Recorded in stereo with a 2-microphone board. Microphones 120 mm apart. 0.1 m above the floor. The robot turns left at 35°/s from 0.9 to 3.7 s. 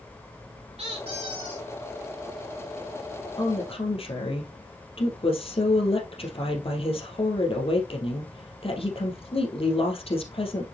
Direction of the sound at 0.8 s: 55° right (ahead or behind).